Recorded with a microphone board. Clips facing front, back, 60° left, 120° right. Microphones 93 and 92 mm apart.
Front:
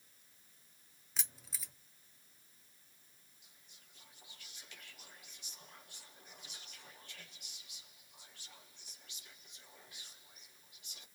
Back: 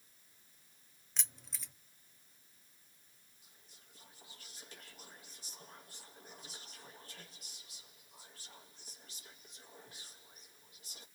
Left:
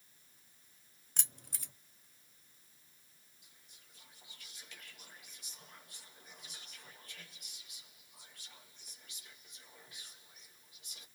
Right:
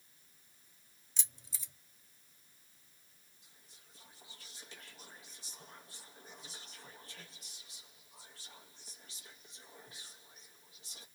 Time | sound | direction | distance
1.2 | keys jangling | 85° left | 0.5 m
3.4 | whispering | 155° right | 1.0 m